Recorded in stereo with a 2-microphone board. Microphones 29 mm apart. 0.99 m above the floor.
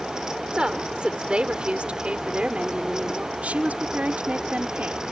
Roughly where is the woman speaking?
Right.